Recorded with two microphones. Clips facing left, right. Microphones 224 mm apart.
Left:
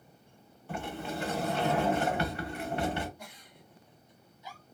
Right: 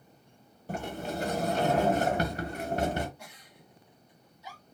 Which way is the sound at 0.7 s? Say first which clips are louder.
Right 2 dB; 40° right (ahead or behind).